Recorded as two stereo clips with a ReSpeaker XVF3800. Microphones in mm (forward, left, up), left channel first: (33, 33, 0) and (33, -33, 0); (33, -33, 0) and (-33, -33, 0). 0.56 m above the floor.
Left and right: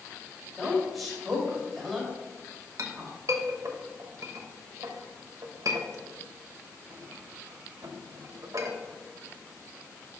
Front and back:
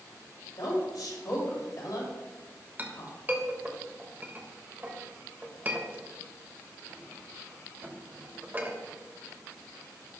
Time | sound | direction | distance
0.6 | a woman speaking | straight ahead | 3 m
2.8 | a clink | 120° right | 1.0 m